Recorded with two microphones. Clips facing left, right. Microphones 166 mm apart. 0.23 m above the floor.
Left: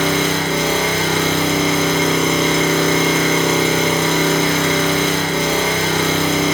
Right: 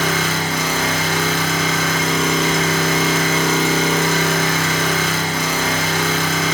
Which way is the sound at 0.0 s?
25° left (ahead or behind).